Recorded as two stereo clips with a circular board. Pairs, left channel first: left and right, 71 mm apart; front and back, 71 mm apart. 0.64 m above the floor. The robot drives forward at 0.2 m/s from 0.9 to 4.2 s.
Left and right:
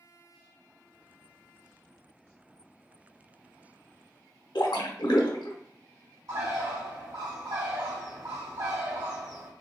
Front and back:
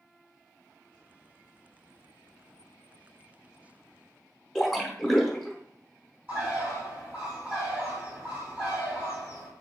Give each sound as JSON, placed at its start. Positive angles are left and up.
{"t": 4.5, "sound": "a splash", "azimuth_deg": 85, "distance_m": 0.7}
{"t": 6.3, "sound": "a bird", "azimuth_deg": -115, "distance_m": 2.0}